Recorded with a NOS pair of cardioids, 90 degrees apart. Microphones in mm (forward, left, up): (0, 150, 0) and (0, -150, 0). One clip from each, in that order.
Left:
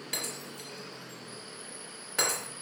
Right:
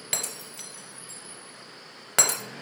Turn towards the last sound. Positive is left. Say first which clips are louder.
# right 4 dB
turn(degrees=-60)